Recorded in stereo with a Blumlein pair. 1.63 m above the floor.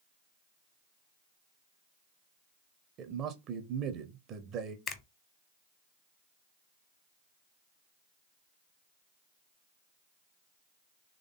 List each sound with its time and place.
3.0 s a man speaking: 35° right, 0.7 m
4.9 s a finger snap: 20° left, 0.8 m